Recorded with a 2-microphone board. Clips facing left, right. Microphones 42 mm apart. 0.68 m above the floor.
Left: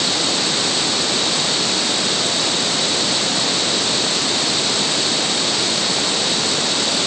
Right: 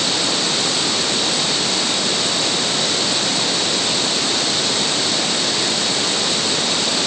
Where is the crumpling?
No crumpling in this recording.